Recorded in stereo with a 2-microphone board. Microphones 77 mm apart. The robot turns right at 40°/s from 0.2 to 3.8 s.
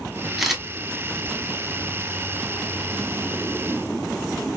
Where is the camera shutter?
Centre (ahead or behind), 0.8 m; by 0.6 s 5° right (ahead or behind), 0.8 m.